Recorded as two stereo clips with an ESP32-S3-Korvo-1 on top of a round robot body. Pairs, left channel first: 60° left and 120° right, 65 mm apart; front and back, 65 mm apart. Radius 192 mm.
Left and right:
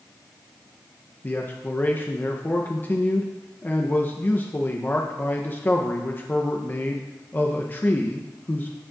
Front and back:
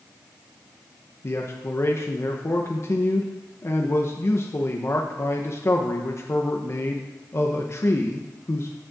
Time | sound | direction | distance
1.2 | a man speaking | 15° left | 0.9 m